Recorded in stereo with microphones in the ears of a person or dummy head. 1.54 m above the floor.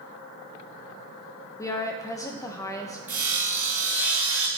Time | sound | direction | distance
1.6 | a woman speaking | 15° left (ahead or behind) | 0.7 m
3.1 | sawing | 10° right (ahead or behind) | 0.9 m